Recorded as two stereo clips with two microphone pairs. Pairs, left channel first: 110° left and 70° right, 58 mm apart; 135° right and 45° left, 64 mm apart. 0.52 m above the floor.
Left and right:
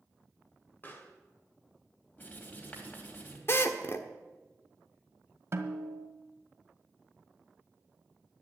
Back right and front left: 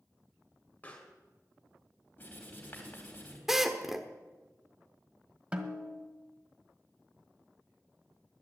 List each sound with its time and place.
0.8 s a pop: 165° left, 2.0 m
2.2 s writing: 165° left, 3 m
3.5 s a drill: 130° left, 1.1 m
5.5 s a snare drum: 25° right, 1.5 m